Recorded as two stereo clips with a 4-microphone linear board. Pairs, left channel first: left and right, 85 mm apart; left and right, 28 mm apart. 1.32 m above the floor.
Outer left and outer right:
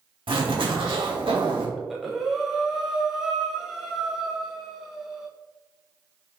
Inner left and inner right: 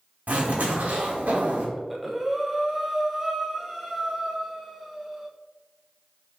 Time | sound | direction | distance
0.3 | a zipper | 75° right (ahead or behind) | 1.0 m
1.8 | breathing | 5° right (ahead or behind) | 0.5 m